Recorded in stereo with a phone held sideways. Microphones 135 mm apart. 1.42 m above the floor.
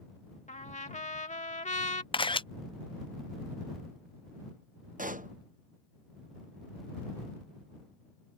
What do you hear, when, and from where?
0.5 s a trumpet: 65° left (ahead or behind)
2.1 s a camera shutter: 40° left (ahead or behind)
5.0 s a pop: 80° right